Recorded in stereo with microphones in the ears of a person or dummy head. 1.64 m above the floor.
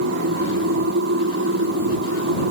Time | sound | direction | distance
0.0 | a machine running | 70° right (ahead or behind) | ?